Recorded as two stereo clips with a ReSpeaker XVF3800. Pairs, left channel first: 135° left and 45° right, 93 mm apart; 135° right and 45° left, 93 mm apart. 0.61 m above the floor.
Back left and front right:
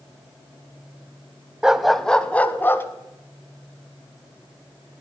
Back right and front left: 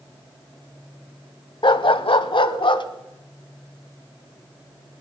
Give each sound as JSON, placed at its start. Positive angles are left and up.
{"t": 1.6, "sound": "a dog barking", "azimuth_deg": -125, "distance_m": 0.7}